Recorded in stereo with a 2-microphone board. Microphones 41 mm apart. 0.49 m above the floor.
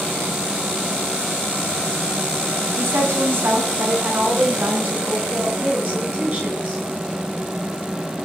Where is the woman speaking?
80° right, 3.5 m; by 6.8 s 40° right (ahead or behind), 7 m.